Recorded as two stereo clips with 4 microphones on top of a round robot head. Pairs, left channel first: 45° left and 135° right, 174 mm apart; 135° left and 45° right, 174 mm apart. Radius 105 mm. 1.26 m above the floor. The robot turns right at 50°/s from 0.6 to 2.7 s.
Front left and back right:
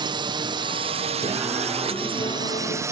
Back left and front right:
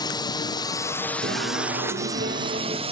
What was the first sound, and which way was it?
A drone, 175° right.